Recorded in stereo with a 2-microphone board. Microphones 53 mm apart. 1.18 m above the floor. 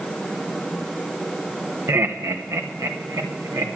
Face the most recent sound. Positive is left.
turn(degrees=-80)